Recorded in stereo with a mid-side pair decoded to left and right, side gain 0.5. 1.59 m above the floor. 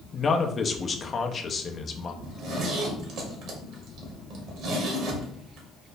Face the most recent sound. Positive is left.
turn(degrees=-65)